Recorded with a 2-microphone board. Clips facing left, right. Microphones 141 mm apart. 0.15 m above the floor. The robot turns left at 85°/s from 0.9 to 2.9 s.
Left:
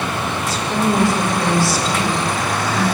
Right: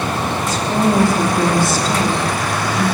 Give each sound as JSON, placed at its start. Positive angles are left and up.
{"t": 0.5, "sound": "a woman speaking", "azimuth_deg": -55, "distance_m": 3.0}